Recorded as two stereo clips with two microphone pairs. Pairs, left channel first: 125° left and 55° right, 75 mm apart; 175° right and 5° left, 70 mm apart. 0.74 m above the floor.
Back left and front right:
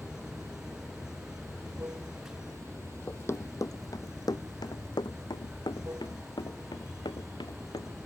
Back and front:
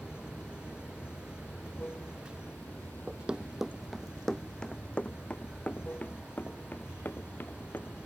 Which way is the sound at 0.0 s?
110° right.